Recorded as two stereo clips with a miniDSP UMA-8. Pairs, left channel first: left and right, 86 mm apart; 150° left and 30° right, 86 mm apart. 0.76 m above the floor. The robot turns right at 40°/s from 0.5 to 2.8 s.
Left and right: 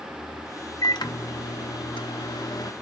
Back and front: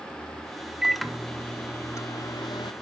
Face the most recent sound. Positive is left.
turn(degrees=135)